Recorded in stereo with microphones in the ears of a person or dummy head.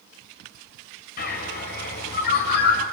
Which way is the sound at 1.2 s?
50° left (ahead or behind).